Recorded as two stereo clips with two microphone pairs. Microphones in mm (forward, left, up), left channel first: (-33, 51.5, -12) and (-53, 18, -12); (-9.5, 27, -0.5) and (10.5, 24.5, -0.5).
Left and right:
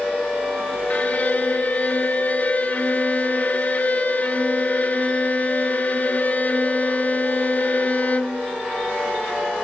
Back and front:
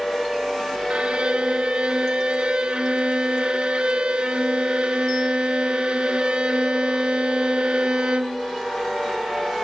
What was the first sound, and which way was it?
A violin, 10° left.